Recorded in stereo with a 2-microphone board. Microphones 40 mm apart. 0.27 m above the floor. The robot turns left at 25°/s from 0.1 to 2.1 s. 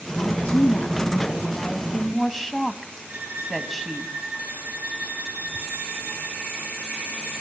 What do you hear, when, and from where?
0.2 s a woman speaking: 50° left, 2 m; by 4.1 s straight ahead, 2 m
3.1 s a violin: 60° right (ahead or behind), 7 m